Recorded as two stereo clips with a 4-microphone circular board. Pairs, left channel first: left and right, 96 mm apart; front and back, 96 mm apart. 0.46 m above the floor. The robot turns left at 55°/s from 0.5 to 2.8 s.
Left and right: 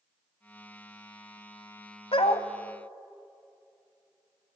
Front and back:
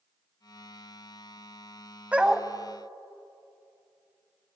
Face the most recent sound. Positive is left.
turn(degrees=65)